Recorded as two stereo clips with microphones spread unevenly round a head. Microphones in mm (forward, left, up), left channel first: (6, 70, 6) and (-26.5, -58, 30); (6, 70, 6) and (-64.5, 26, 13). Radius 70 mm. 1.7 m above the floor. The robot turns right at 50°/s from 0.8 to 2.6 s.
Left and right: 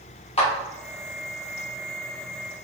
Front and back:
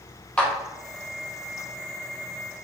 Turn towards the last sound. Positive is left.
turn(degrees=-160)